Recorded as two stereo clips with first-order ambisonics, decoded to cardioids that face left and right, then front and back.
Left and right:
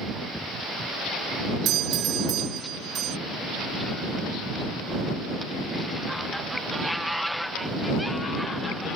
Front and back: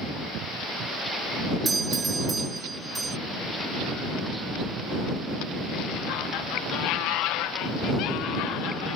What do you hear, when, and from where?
1.6 s a doorbell: 110° right